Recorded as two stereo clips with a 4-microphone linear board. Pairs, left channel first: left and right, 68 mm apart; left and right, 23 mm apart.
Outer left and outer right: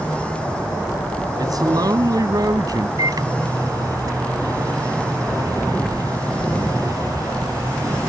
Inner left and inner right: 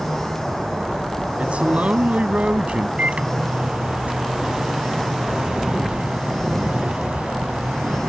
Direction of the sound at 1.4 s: 70° right (ahead or behind).